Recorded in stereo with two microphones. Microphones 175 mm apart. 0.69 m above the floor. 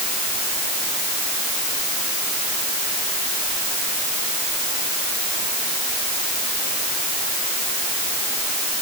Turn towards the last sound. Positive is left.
No sound to turn to.